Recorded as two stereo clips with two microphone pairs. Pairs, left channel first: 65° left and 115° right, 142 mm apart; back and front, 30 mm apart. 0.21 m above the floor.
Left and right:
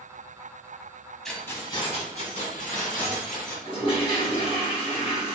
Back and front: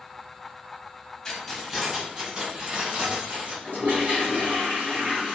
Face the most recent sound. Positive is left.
turn(degrees=15)